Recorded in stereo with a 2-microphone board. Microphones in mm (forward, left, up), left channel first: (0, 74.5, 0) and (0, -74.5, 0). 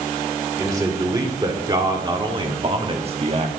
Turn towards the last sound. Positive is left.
turn(degrees=-45)  # may be behind; listen again after turning